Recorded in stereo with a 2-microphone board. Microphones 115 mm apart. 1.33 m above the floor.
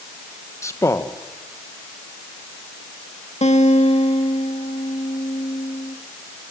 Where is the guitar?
75° left (ahead or behind), 2.5 m.